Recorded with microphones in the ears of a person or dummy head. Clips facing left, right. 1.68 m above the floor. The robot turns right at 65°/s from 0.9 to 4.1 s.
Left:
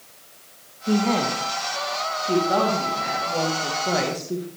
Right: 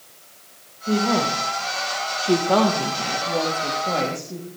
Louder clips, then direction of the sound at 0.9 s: Even; 5° left (ahead or behind).